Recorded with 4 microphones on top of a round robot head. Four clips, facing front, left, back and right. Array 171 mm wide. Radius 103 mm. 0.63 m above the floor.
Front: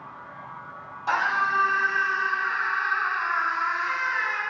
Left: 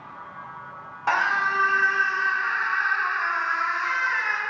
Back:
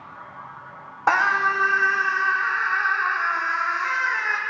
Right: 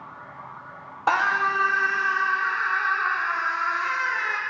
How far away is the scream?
About 1.3 m.